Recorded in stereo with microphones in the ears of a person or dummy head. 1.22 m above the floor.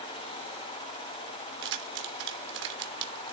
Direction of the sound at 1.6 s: 65° right (ahead or behind).